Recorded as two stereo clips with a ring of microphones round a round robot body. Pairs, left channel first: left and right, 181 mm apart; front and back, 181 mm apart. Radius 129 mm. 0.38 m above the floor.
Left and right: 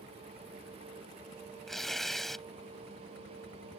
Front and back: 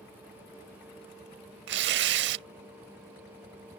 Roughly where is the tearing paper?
Behind.